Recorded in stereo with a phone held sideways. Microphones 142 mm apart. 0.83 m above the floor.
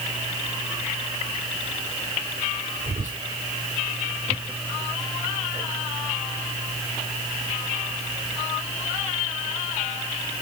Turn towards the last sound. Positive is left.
turn(degrees=-70)  # may be behind; listen again after turning